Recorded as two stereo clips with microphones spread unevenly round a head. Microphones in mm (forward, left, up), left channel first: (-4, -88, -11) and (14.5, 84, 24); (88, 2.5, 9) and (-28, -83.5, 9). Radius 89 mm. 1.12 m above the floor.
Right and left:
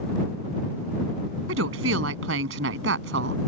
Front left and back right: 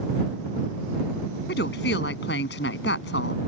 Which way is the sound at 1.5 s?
70° left.